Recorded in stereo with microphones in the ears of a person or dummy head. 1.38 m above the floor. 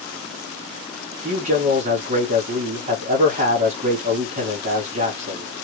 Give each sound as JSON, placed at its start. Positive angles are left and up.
{"t": 1.2, "sound": "a man speaking", "side_deg": -40, "distance_m": 1.1}